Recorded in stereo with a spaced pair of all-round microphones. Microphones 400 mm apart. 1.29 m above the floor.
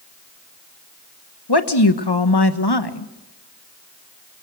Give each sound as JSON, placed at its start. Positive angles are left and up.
{"t": 1.5, "sound": "a woman speaking", "side_deg": 75, "distance_m": 1.4}